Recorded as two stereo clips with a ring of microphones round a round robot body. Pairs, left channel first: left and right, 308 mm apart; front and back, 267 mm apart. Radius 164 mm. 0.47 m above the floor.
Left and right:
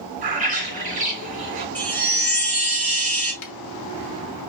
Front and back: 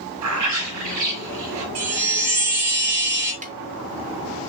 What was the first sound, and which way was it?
A bird, 155° right.